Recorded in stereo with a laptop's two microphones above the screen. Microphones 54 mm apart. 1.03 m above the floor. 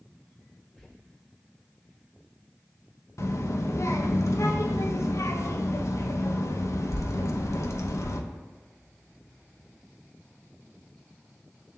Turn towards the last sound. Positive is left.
turn(degrees=65)  # may be behind; listen again after turning